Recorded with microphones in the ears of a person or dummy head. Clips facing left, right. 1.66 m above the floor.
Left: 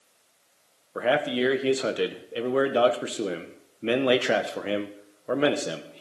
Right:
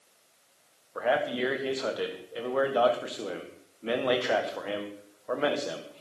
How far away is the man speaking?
About 1.5 m.